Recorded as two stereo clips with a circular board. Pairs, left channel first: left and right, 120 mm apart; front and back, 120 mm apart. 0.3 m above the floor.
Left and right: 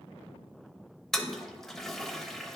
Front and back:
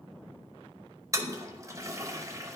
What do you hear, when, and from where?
1.1 s a toilet flushing: 175° left, 0.6 m